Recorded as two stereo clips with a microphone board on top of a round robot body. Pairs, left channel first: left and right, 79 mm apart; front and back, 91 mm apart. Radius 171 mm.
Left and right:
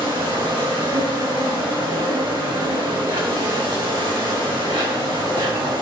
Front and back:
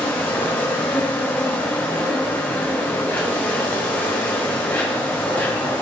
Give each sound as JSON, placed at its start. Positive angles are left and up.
{"t": 0.0, "sound": "an insect", "azimuth_deg": -75, "distance_m": 2.5}